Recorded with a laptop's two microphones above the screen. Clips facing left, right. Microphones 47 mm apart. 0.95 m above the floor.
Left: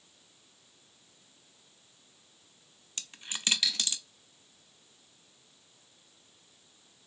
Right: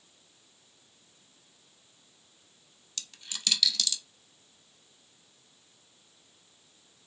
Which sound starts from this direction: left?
A dropped coin, at 3.0 s.